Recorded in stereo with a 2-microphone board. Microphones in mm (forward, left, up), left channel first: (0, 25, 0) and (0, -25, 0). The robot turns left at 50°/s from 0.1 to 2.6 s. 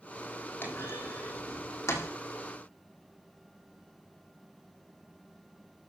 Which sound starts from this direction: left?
A clunk, at 0.6 s.